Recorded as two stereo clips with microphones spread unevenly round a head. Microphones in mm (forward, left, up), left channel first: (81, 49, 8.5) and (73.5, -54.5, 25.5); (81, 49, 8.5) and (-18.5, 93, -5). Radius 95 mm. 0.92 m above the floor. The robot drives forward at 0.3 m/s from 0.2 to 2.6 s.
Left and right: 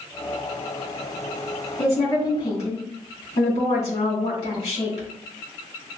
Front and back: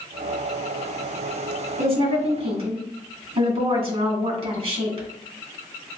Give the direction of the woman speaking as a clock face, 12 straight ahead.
7 o'clock.